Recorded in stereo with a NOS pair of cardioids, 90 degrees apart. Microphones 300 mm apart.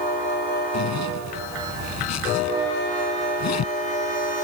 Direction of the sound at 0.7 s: 60° left.